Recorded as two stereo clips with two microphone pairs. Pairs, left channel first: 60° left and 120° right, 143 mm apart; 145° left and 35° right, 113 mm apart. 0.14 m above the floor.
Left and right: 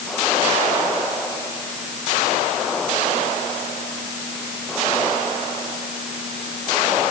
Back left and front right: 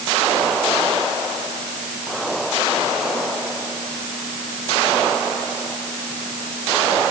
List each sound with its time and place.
Only background noise.